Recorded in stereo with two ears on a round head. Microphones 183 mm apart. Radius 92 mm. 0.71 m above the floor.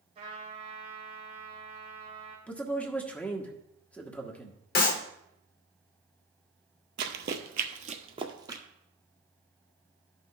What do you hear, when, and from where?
0.1 s a trumpet: 35° right (ahead or behind), 3.5 m
2.5 s a man speaking: 5° left (ahead or behind), 1.0 m
4.8 s a clap: 45° left (ahead or behind), 1.2 m
7.0 s running footsteps: 60° right (ahead or behind), 1.2 m; by 8.6 s 15° right (ahead or behind), 1.3 m